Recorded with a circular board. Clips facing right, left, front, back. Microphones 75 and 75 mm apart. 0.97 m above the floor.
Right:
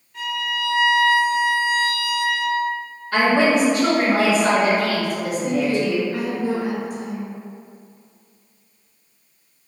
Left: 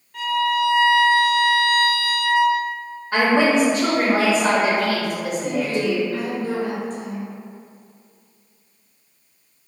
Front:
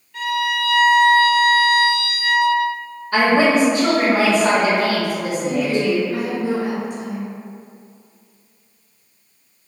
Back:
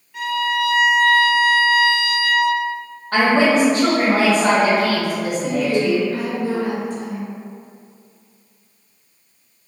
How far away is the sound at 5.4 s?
About 0.8 m.